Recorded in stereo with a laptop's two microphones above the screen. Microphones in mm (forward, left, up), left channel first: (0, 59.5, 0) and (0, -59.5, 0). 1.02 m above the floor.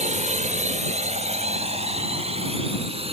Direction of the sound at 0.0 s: 75° right (ahead or behind).